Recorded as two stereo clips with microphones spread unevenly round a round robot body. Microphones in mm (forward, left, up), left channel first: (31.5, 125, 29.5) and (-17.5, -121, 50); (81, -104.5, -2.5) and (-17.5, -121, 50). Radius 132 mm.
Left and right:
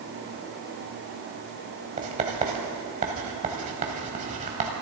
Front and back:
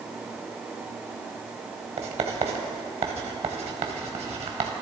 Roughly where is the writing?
Behind.